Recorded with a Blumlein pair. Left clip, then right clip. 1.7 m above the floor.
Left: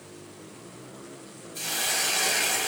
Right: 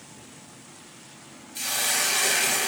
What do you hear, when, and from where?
1.6 s a hiss: 15° right, 0.7 m